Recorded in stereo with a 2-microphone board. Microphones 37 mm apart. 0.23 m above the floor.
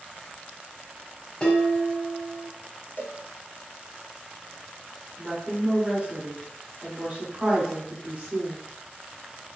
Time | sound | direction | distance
1.4 | dishes clattering | 25° left (ahead or behind) | 1.0 m
3.0 | a cowbell | 75° left (ahead or behind) | 0.7 m
5.2 | a woman speaking | 30° right (ahead or behind) | 1.6 m